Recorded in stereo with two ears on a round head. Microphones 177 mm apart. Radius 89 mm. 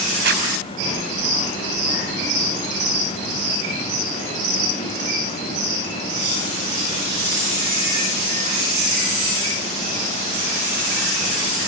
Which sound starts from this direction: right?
A zipper, at 0.2 s.